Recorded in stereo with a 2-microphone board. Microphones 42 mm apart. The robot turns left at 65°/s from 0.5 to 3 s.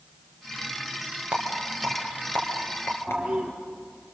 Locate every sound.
1.3 s a rattle: 20° right (ahead or behind), 3 m; by 3.2 s 85° left, 3 m
3.1 s a toilet flushing: 15° right (ahead or behind), 2.5 m